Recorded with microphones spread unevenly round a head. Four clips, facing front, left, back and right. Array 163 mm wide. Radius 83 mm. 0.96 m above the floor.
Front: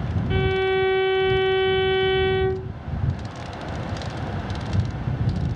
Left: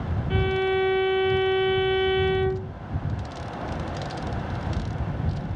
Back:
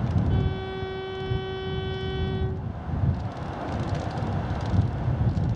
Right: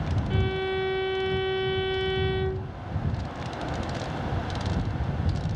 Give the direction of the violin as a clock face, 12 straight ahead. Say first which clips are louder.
Left 6 dB, front 9 dB; 11 o'clock.